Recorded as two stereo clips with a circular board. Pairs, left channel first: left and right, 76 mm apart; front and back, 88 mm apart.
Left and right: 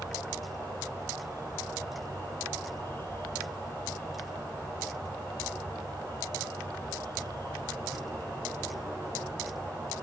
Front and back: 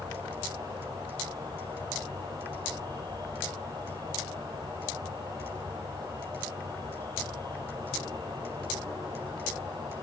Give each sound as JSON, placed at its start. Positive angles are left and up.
{"t": 0.0, "sound": "an insect", "azimuth_deg": 150, "distance_m": 4.0}